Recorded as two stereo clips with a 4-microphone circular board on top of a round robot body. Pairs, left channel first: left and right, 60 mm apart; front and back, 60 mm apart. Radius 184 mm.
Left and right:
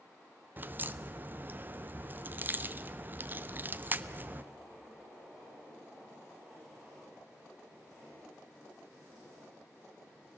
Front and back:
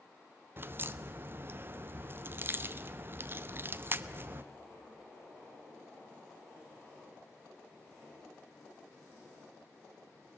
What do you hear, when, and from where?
0.6 s a crack: 140° right, 0.7 m